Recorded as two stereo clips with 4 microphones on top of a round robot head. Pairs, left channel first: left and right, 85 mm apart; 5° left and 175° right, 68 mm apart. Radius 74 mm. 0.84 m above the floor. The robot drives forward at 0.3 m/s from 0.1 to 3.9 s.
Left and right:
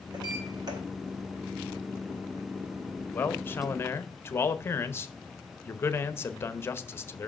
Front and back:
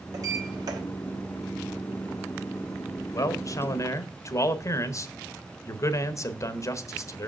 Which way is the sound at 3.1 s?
25° left.